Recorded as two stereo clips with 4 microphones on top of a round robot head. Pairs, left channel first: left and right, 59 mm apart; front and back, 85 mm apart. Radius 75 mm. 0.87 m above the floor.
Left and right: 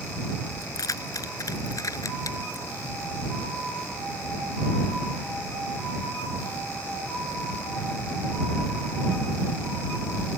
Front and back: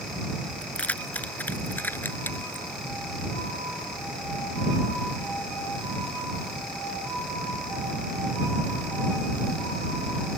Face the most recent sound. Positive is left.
turn(degrees=65)